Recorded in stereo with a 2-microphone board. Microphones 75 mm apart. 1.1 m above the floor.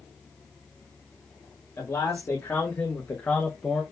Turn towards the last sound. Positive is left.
turn(degrees=0)  # may be behind; listen again after turning